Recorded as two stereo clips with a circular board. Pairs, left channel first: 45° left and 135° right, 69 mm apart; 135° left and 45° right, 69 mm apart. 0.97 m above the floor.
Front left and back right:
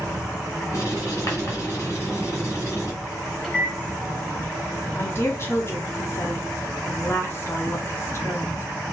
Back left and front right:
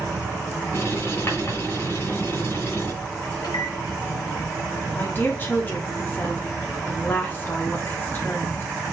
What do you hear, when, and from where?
0.7 s writing: 85° left, 2.5 m
3.4 s a microwave: 120° left, 2 m
5.0 s a woman speaking: 80° left, 1.0 m